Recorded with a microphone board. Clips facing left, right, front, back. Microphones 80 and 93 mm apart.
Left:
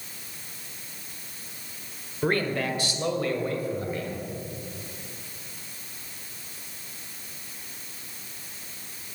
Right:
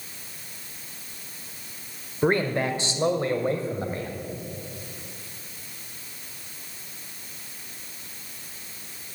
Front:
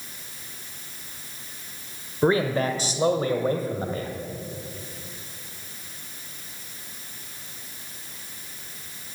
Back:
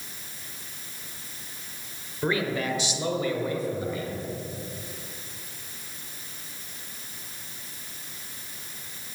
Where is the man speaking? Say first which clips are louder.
Right 3 dB, front 5 dB; 30° right, 1.2 m; by 4.1 s 35° right, 2 m.